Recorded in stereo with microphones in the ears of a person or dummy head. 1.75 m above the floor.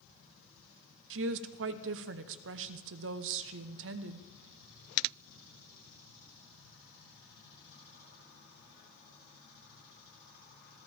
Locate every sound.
1.1 s a woman speaking: 65° right (ahead or behind), 0.9 m